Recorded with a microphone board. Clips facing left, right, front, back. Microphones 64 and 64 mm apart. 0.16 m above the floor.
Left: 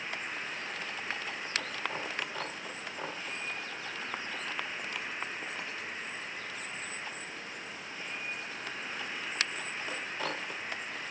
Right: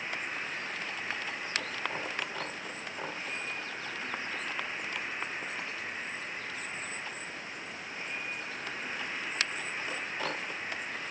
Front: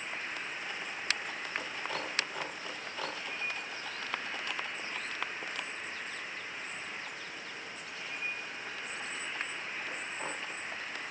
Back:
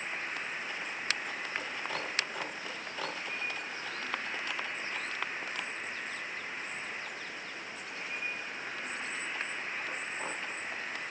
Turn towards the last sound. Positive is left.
turn(degrees=-135)